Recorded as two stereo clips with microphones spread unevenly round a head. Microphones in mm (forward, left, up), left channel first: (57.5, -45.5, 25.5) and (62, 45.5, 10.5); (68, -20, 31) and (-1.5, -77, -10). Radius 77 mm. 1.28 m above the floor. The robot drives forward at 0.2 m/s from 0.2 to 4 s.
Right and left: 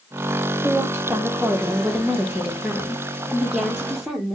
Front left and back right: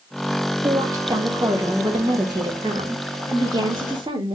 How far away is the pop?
I don't hear a pop.